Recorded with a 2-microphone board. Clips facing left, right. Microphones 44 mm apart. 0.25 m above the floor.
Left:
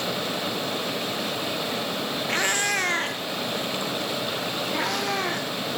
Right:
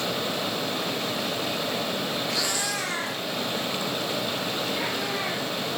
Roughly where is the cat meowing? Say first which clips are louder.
Left 4 dB; left.